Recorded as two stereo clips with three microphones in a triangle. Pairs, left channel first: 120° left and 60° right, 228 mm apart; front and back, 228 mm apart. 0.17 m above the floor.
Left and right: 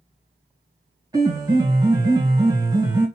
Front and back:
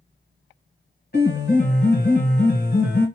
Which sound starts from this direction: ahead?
A piano, at 1.1 s.